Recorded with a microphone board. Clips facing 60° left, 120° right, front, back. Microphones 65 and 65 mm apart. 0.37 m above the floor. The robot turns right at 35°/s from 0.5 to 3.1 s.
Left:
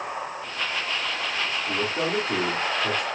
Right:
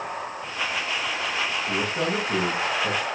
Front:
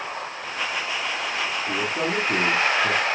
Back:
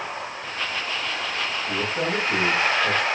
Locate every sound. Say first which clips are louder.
1.7 s a man speaking: left 1 dB, back 1 dB; 45° right, 4 m; by 3.0 s 5° left, 4 m